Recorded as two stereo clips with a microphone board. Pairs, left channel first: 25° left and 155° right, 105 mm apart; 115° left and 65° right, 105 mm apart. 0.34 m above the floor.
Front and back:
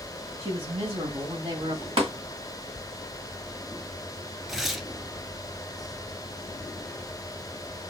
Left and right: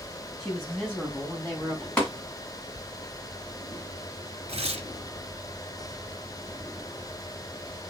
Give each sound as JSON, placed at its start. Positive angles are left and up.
{"t": 0.4, "sound": "a woman speaking", "azimuth_deg": -160, "distance_m": 4.0}
{"t": 2.0, "sound": "tapping", "azimuth_deg": -170, "distance_m": 2.0}
{"t": 4.5, "sound": "tearing paper", "azimuth_deg": -70, "distance_m": 1.0}